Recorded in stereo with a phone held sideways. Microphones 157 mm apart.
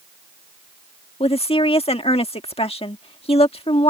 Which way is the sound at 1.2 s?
35° left (ahead or behind).